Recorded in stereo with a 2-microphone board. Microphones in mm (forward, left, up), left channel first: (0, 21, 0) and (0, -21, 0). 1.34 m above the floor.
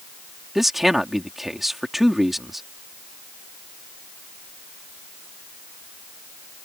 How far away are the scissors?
I don't hear scissors.